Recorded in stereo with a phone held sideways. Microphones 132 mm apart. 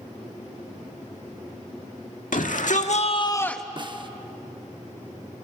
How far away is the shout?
About 1.9 m.